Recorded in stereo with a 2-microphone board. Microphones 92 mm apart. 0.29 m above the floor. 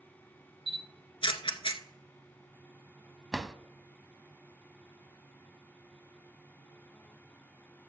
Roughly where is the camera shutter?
Left.